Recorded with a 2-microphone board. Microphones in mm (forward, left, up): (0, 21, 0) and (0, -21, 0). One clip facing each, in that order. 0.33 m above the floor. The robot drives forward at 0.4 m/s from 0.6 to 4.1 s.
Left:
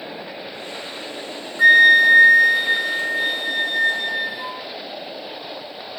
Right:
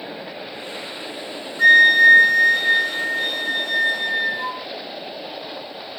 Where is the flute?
10° left (ahead or behind), 0.6 m; by 4.6 s 5° left (ahead or behind), 1.5 m.